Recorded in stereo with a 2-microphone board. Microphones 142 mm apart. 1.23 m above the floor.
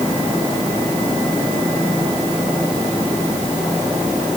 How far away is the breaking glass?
I don't hear breaking glass.